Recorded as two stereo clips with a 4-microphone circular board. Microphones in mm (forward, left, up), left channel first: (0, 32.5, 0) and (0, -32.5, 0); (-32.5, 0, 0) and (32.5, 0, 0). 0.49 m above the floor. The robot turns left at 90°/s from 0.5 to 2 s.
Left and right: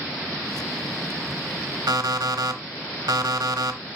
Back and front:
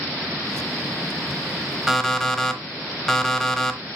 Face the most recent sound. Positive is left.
turn(degrees=-95)